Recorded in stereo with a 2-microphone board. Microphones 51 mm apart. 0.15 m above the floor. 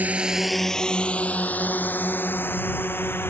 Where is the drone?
35° right (ahead or behind); by 3.3 s 45° left (ahead or behind).